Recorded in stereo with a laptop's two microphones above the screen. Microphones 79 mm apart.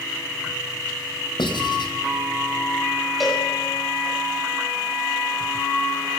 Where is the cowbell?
Centre (ahead or behind), 6 m.